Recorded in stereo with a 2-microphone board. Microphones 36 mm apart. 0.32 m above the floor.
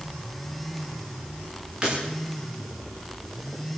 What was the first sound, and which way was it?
Breaking glass, 25° right (ahead or behind).